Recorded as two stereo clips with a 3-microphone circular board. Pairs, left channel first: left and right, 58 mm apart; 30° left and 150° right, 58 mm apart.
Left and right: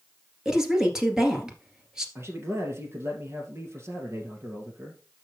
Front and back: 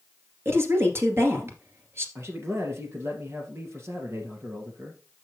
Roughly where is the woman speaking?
Behind.